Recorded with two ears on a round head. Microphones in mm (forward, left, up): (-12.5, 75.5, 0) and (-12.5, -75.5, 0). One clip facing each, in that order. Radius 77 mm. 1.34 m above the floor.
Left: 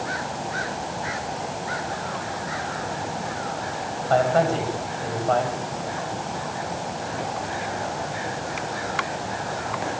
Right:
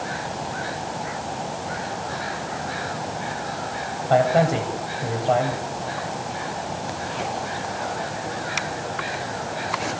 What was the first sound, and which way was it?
A man speaking, 20° right (ahead or behind).